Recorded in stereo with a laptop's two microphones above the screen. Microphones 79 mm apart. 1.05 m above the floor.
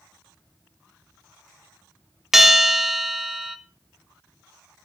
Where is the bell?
5° right (ahead or behind), 0.6 m.